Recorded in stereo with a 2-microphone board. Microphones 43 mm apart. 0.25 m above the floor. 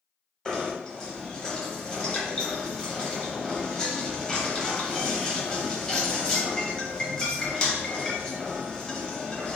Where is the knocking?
20° left (ahead or behind), 0.7 m.